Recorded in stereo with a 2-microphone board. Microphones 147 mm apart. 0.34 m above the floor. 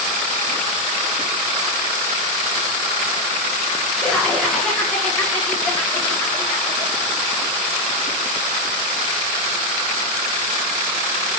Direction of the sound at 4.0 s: 5° left (ahead or behind).